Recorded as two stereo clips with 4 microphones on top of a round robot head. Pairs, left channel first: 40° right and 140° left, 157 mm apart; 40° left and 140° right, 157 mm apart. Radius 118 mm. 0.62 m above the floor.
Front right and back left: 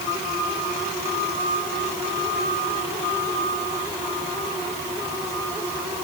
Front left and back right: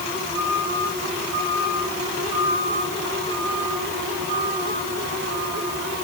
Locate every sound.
Only background noise.